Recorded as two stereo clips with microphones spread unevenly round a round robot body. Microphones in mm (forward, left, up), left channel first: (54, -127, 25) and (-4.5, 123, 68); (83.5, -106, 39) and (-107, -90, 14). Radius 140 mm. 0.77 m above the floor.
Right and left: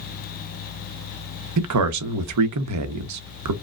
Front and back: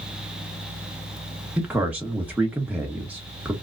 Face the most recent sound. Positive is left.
turn(degrees=95)